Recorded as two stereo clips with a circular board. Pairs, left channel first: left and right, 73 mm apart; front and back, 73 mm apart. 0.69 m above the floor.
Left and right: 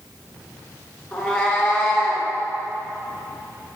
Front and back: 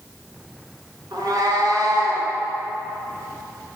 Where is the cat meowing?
170° left, 1.4 m; by 2.3 s 165° left, 2.0 m.